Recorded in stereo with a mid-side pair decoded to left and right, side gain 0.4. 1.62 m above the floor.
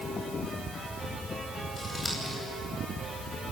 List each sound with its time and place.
1.8 s scissors: 25° left, 9 m